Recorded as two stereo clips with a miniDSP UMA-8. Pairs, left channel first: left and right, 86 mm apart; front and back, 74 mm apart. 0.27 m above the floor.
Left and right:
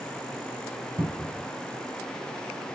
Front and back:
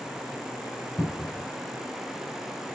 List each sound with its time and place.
1.0 s a cupboard door: 90° right, 1.2 m